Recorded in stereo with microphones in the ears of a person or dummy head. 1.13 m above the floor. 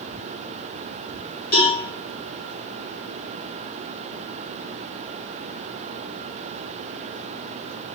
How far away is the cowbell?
About 1.5 m.